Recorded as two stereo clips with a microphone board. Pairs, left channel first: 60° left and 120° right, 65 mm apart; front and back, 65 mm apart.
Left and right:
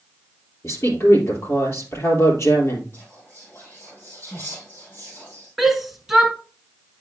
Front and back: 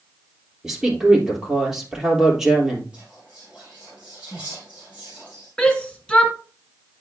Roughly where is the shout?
Ahead right.